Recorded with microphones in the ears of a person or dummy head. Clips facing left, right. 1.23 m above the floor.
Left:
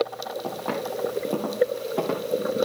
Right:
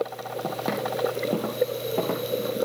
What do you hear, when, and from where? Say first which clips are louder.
0.4 s footsteps: right 2 dB; 35° right (ahead or behind), 2.5 m; by 2.4 s 5° left (ahead or behind), 3.5 m